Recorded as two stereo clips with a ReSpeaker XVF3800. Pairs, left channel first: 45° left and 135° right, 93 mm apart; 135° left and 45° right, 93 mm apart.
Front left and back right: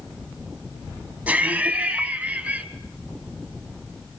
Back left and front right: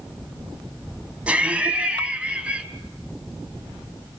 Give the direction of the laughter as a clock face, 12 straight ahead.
3 o'clock.